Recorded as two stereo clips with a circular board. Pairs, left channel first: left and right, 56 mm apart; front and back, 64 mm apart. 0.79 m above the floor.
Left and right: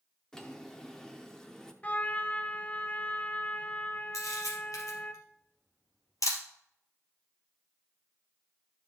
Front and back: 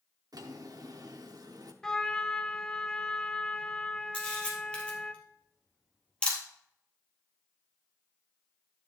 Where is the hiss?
No hiss in this recording.